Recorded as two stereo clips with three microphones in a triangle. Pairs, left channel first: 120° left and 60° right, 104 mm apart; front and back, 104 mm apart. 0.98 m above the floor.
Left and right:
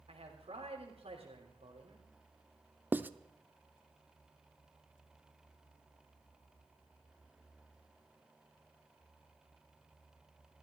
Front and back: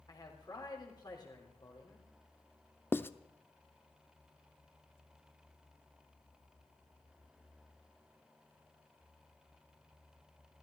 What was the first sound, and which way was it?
A man speaking, 50° right.